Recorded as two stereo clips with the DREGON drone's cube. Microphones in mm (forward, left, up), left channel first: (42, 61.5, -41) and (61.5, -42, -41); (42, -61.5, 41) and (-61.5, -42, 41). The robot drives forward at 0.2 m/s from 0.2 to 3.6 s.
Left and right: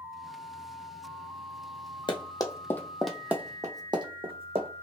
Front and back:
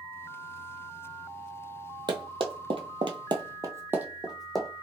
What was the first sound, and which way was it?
Running footsteps, 135° left.